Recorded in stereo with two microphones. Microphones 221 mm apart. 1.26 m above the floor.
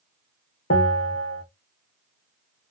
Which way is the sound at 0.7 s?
75° left (ahead or behind).